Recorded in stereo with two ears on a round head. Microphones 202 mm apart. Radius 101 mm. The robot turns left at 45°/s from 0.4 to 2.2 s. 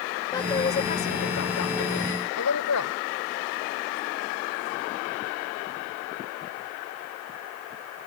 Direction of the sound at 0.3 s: 160° left.